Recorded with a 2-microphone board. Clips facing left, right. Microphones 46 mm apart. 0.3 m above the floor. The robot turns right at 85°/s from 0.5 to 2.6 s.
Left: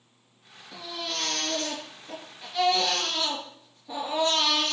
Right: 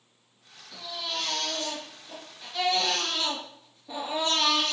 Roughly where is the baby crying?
Ahead.